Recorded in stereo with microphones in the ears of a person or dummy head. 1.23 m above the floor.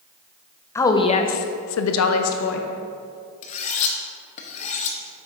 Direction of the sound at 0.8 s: 10° left (ahead or behind).